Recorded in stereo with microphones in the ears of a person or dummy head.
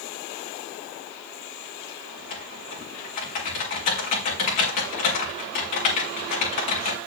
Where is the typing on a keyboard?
40° left (ahead or behind), 2.5 m.